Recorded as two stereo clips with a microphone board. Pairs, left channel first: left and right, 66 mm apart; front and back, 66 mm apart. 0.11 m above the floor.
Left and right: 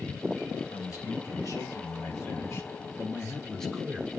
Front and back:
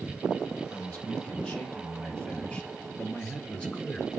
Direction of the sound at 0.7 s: 70° left.